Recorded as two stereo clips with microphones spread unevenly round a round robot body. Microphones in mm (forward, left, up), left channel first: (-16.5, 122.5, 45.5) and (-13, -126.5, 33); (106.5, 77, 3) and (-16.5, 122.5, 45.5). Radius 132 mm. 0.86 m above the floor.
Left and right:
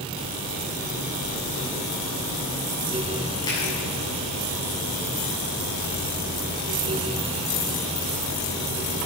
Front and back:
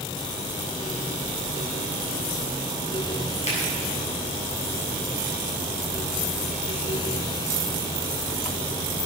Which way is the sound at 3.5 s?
15° left.